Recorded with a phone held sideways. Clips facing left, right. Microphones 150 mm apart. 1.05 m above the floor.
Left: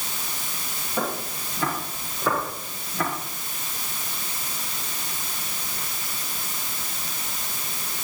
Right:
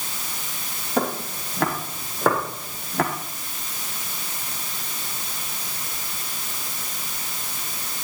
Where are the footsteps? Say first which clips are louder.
Right 4 dB; 70° right (ahead or behind), 8 m; by 3.1 s 75° right (ahead or behind), 6.5 m.